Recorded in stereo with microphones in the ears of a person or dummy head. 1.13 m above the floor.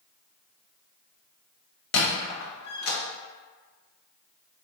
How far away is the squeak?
About 1.0 m.